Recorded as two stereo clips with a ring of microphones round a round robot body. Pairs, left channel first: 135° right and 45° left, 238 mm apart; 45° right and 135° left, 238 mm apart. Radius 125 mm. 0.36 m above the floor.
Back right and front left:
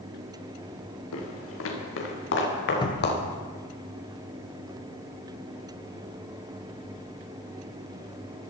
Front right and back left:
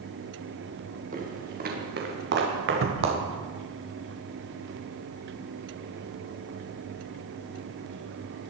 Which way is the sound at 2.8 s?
155° left.